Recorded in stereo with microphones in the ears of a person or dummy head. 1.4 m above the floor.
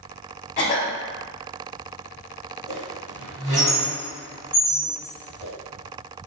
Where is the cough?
40° left (ahead or behind), 0.8 m.